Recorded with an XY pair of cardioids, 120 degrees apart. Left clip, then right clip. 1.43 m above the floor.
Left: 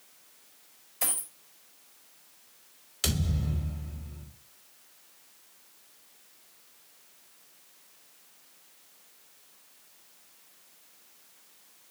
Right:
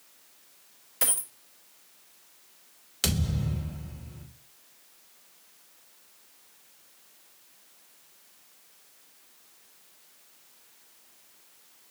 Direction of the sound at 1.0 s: 60° right.